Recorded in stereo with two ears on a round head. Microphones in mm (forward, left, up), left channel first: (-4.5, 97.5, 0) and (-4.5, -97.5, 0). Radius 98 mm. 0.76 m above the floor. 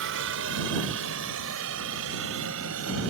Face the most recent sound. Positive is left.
turn(degrees=-75)  # may be behind; listen again after turning